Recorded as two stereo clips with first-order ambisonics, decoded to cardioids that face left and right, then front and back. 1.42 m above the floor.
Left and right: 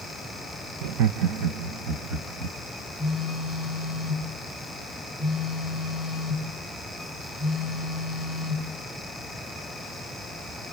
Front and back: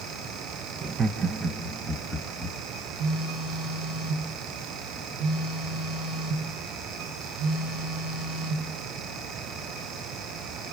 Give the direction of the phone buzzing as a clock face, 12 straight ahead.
6 o'clock.